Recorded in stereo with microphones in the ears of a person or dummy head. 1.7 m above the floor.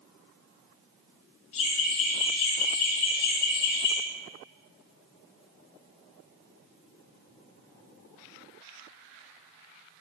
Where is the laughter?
40° left (ahead or behind), 4.5 m; by 4.0 s 65° left (ahead or behind), 4 m.